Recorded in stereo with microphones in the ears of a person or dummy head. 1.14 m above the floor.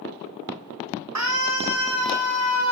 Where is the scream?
75° right (ahead or behind), 1.9 m; by 2.7 s 65° right (ahead or behind), 3 m.